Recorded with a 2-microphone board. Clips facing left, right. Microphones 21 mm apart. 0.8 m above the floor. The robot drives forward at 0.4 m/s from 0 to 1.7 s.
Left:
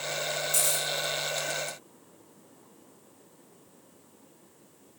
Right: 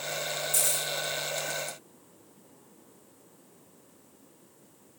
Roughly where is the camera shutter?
Left.